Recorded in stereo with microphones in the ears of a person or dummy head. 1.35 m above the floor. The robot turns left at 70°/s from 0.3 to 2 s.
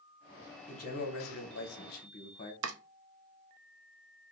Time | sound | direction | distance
0.7 | a man speaking | 140° left | 1.0 m
2.6 | chopping | 80° right | 0.5 m